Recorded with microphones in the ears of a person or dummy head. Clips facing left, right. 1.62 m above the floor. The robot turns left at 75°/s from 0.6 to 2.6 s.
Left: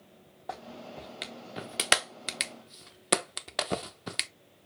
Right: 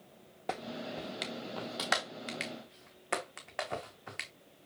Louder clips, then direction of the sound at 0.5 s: Right 3 dB; 35° right (ahead or behind).